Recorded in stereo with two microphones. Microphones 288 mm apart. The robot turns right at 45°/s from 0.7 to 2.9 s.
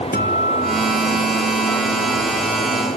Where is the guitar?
35° left, 1.5 m; by 2.2 s 105° left, 1.5 m.